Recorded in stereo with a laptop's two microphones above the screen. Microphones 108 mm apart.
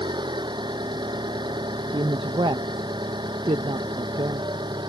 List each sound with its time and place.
0.0 s an engine running: 45° right (ahead or behind)
1.9 s a woman speaking: 50° right (ahead or behind)